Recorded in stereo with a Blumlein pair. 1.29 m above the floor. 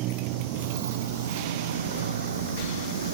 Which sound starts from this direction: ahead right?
A motorcycle, at 0.0 s.